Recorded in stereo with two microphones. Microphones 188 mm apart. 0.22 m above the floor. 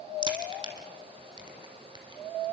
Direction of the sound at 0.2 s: 25° right (ahead or behind).